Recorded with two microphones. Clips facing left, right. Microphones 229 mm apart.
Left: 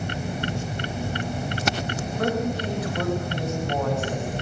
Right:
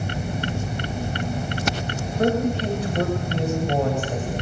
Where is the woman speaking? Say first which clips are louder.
Right 5 dB; 30° right (ahead or behind), 7 m; by 4.3 s 35° right (ahead or behind), 8 m.